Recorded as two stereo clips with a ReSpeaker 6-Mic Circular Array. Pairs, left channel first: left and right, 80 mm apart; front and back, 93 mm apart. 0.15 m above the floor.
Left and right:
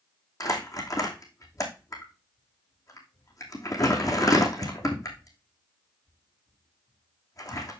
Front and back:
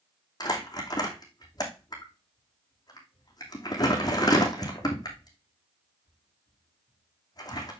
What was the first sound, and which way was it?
Crumpling, 45° left.